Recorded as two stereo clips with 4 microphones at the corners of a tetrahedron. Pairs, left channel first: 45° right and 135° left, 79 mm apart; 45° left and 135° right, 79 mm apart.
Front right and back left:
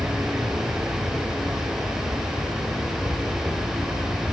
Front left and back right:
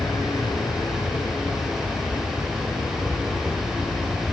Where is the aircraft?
70° left.